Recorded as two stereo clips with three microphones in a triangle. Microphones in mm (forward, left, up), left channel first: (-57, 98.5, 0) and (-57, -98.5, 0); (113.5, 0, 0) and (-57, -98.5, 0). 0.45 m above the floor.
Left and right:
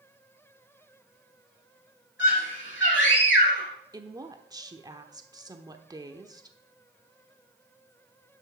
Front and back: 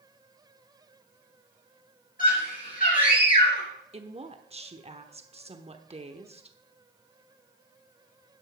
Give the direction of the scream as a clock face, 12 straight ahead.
10 o'clock.